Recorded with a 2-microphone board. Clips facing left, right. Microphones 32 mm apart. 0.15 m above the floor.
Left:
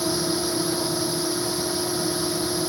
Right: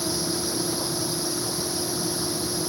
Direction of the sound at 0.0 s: 35° left (ahead or behind).